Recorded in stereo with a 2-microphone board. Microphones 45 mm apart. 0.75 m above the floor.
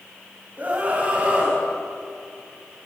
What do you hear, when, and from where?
0.6 s a scream: 35° right (ahead or behind), 4 m; by 1.6 s 30° right (ahead or behind), 5.5 m